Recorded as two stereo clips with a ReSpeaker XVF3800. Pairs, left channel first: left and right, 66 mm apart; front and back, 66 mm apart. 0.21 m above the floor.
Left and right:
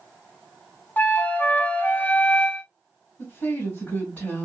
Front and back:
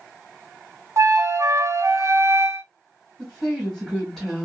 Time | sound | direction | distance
1.0 | a flute | 150° left | 0.6 m
3.2 | a woman speaking | 75° left | 1.7 m